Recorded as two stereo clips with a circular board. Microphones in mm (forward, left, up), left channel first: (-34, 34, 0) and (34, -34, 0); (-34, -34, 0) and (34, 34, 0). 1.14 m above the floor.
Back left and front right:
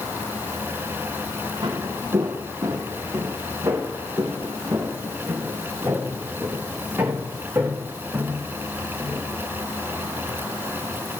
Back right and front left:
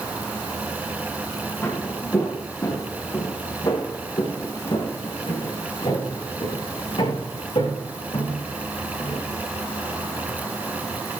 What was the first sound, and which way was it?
Footsteps, 75° right.